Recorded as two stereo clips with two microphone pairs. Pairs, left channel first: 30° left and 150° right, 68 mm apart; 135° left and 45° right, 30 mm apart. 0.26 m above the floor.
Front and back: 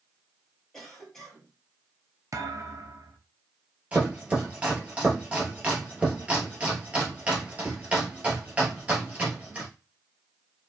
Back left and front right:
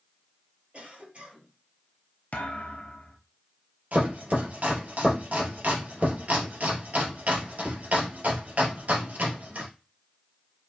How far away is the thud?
About 0.8 m.